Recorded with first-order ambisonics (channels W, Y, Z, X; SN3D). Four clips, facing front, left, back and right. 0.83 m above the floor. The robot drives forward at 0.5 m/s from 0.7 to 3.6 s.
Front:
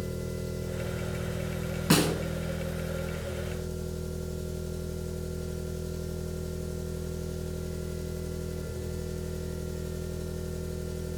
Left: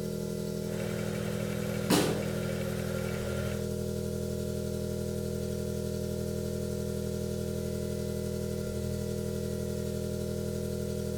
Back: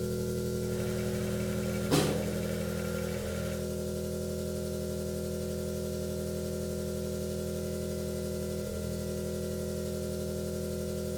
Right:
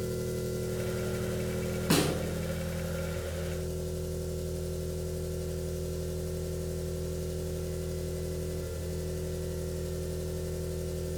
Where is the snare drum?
10° right, 2 m; by 2.1 s 15° right, 1.9 m.